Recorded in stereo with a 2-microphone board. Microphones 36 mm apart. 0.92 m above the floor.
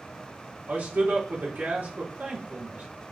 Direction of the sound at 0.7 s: 65° right (ahead or behind).